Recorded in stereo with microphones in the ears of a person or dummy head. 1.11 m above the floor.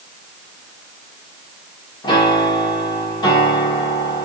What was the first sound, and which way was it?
A piano, 25° left (ahead or behind).